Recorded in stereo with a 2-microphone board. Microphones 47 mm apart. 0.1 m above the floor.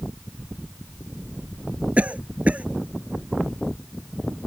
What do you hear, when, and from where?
2.0 s a cough: 30° right (ahead or behind)